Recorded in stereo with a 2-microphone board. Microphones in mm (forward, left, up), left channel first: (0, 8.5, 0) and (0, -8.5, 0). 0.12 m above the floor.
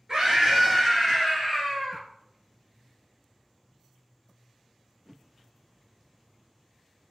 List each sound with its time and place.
0.1 s a scream: 50° right (ahead or behind), 1.8 m; by 2.0 s 15° left (ahead or behind), 2 m